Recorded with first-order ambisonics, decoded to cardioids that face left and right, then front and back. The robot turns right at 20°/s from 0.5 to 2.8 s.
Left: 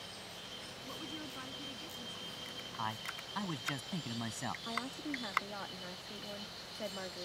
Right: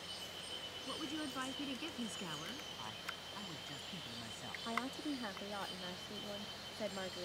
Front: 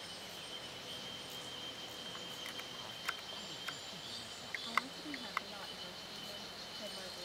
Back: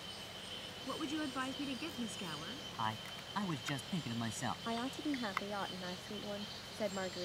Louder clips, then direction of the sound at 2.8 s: Left 6 dB, back 5 dB; 145° left.